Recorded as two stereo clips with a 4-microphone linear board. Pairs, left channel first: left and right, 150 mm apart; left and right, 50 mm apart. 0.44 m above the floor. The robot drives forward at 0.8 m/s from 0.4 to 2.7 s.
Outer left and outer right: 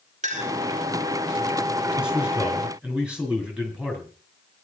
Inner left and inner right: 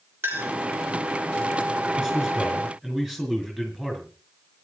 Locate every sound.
0.2 s a clink: 50° right (ahead or behind), 3.5 m
2.0 s a man speaking: 5° right (ahead or behind), 6 m